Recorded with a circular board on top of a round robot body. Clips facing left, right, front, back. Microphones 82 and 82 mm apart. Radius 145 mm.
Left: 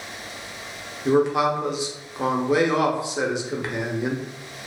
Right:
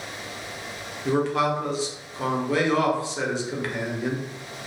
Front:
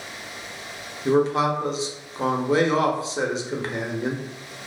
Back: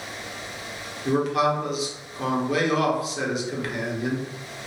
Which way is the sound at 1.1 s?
30° left.